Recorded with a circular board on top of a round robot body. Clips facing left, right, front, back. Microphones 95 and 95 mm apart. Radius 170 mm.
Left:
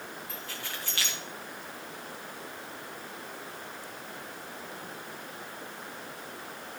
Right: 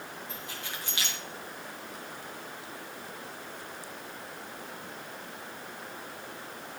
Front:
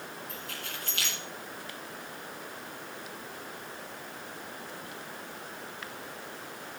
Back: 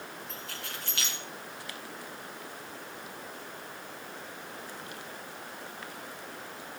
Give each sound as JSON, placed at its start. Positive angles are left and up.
{"t": 0.3, "sound": "keys jangling", "azimuth_deg": -160, "distance_m": 4.5}